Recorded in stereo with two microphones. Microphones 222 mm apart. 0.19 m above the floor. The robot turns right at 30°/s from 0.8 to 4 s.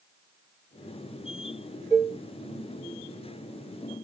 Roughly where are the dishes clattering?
Right.